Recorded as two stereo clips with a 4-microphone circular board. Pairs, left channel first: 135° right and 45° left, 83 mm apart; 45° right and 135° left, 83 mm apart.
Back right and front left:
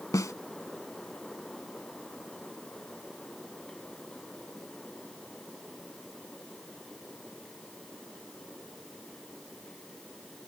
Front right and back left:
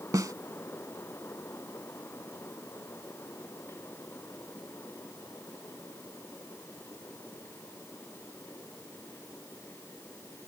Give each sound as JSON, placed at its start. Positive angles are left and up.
{"t": 0.1, "sound": "a snare drum", "azimuth_deg": 180}